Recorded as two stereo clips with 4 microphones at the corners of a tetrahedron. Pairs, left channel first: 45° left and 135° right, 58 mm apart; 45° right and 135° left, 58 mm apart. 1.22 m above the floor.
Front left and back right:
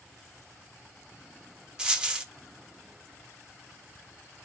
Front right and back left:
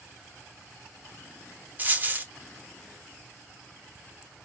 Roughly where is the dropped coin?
Behind left.